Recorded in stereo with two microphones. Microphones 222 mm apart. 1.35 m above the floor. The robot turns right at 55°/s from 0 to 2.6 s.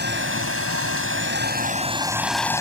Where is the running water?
130° right; by 2.6 s 15° left.